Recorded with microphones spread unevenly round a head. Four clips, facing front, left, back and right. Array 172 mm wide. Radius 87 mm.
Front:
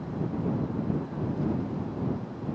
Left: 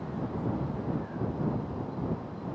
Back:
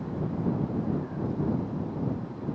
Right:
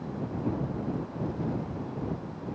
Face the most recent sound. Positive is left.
No sound to turn to.